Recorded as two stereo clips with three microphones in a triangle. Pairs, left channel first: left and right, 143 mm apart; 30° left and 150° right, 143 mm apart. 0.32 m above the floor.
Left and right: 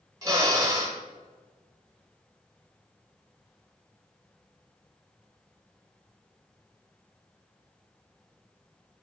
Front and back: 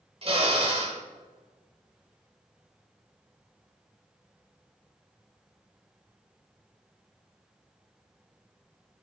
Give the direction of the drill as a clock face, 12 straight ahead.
5 o'clock.